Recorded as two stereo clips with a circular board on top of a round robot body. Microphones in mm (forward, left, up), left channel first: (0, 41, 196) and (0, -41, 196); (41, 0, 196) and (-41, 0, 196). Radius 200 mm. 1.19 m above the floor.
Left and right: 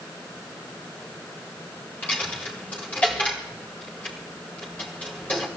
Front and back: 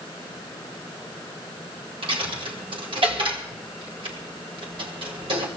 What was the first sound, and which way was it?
A dropped coin, 165° left.